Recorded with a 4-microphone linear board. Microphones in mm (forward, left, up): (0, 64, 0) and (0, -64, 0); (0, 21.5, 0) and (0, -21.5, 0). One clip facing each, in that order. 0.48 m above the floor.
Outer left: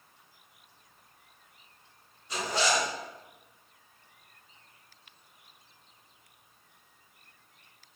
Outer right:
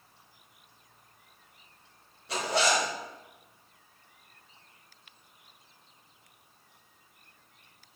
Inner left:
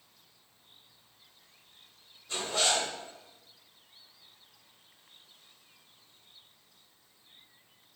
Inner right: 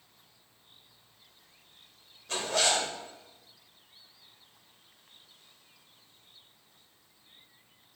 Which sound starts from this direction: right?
A zipper, at 2.3 s.